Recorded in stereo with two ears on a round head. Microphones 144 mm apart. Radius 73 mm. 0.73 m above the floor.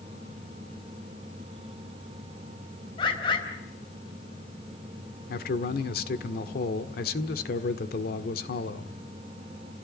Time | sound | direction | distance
3.0 | a bird | 30° left (ahead or behind) | 3.5 m
5.3 | a man speaking | 65° left (ahead or behind) | 1.6 m